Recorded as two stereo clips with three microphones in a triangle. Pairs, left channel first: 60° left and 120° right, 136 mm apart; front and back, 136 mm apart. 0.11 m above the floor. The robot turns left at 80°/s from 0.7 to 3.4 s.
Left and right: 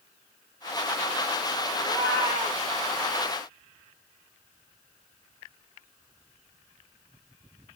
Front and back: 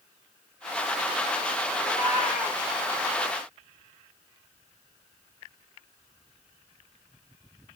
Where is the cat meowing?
140° left, 8 m; by 2.6 s 75° left, 8 m.